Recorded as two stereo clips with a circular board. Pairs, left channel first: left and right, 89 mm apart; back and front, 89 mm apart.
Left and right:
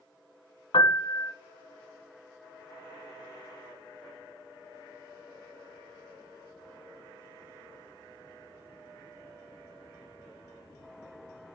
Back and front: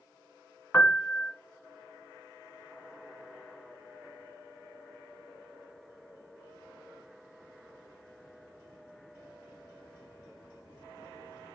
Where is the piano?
115° left, 0.8 m.